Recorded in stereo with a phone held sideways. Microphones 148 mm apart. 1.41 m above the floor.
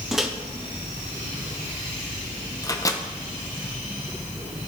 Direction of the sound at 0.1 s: Centre (ahead or behind).